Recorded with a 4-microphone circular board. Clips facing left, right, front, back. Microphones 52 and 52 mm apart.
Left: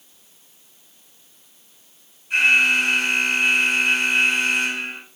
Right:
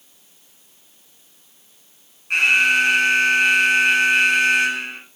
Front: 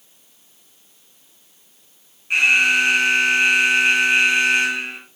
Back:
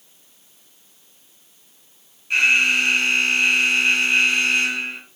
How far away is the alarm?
About 7 m.